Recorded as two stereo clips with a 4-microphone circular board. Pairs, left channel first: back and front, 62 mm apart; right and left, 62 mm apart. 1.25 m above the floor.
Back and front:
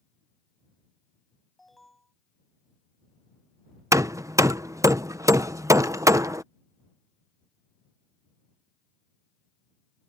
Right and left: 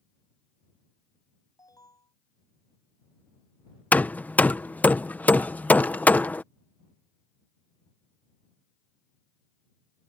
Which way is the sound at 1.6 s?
90° right.